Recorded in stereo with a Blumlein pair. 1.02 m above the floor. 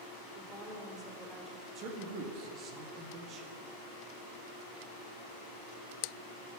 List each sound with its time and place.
0.3 s a woman speaking: 10° right, 3.5 m
1.8 s a man speaking: 35° right, 1.7 m